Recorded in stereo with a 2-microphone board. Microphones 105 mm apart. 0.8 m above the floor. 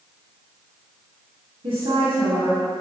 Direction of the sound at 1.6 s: 70° right (ahead or behind).